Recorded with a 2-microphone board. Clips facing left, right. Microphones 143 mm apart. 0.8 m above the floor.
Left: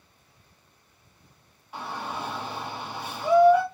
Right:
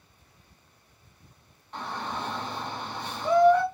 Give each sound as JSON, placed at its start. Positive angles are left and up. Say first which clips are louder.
{"t": 1.7, "sound": "a shout", "louder": "even", "side_deg": 5, "distance_m": 0.9}